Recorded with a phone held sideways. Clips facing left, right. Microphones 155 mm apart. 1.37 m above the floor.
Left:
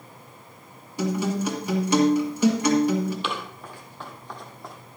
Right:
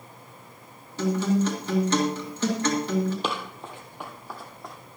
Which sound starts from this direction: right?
Running footsteps, at 3.2 s.